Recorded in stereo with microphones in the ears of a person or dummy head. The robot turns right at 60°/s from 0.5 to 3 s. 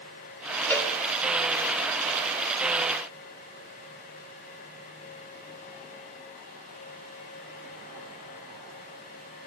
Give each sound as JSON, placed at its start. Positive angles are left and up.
{"t": 0.7, "sound": "a cowbell", "side_deg": 10, "distance_m": 1.7}